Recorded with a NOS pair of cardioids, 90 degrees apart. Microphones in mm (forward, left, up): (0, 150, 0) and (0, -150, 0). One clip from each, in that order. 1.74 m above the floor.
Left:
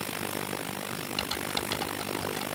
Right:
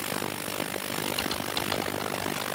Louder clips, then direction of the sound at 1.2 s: Right 2 dB; 5° left.